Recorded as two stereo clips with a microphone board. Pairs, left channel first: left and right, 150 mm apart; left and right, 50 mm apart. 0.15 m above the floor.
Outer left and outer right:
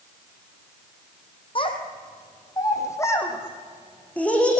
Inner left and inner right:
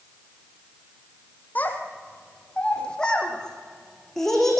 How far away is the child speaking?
About 3.5 m.